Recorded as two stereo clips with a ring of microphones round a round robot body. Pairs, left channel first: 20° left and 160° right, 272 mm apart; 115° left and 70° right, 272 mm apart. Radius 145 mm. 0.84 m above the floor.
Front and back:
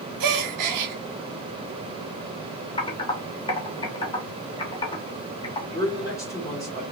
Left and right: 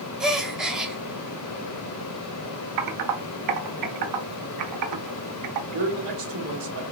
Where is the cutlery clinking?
I don't hear cutlery clinking.